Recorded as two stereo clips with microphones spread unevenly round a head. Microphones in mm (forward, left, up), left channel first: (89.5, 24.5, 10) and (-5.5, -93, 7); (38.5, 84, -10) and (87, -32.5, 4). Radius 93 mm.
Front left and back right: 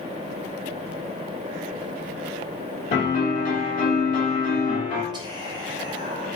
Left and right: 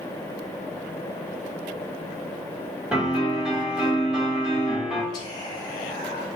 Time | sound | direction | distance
2.9 | a piano | 15° left | 1.8 m
5.1 | whispering | 170° left | 0.8 m